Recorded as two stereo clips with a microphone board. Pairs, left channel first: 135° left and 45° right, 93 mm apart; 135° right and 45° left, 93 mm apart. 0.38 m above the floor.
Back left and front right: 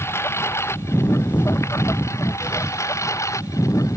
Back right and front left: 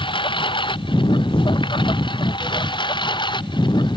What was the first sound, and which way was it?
A lawn mower, 160° right.